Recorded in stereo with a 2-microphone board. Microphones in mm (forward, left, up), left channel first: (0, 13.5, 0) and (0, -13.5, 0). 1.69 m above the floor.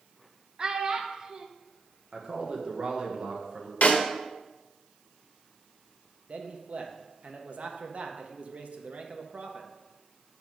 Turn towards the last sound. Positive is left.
turn(degrees=-50)  # may be behind; listen again after turning